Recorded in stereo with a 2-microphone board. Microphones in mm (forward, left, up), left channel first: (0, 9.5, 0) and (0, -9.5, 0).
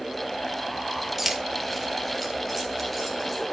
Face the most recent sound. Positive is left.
turn(degrees=10)  # may be behind; listen again after turning